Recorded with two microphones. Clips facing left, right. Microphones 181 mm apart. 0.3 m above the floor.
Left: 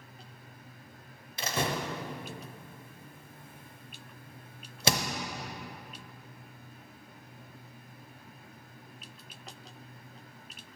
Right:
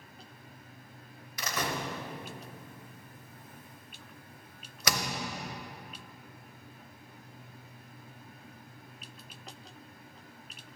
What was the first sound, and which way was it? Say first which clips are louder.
A door slam: left 2 dB; 25° left (ahead or behind).